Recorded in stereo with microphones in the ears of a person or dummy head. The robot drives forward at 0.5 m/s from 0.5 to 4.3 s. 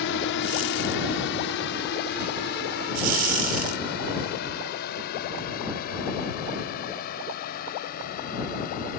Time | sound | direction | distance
0.0 | a drone | 65° left (ahead or behind) | ?